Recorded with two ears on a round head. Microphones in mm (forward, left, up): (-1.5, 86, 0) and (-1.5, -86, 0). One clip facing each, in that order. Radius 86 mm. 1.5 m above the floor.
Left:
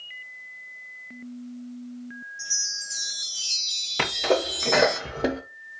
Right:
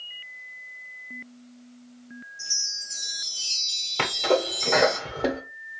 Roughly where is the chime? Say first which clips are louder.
Left 4 dB; centre.